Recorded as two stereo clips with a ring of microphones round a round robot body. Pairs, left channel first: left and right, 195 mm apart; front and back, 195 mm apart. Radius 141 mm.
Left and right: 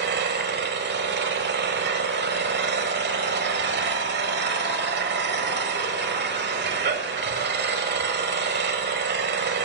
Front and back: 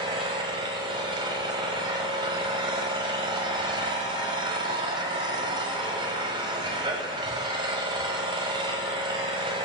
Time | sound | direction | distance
0.0 | an engine running | 110° right | 1.0 m